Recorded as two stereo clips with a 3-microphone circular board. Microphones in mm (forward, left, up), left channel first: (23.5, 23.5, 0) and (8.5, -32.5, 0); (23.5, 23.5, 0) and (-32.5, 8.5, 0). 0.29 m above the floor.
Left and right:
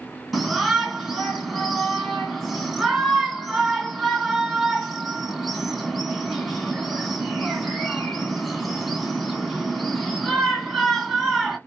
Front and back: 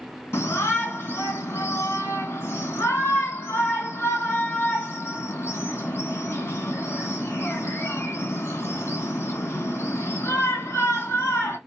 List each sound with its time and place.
0.3 s a shout: 20° right, 2.5 m